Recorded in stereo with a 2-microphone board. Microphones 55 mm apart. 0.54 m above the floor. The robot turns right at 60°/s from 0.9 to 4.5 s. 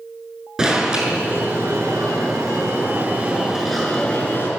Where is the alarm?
165° right, 7 m; by 4.5 s 50° left, 7 m.